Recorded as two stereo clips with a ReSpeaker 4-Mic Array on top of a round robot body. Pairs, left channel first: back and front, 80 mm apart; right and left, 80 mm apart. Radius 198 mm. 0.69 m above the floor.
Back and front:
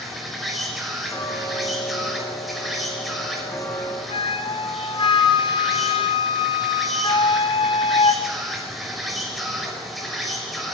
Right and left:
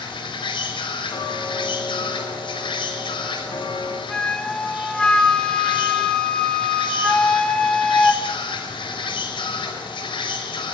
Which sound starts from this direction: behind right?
Ticking, at 1.1 s.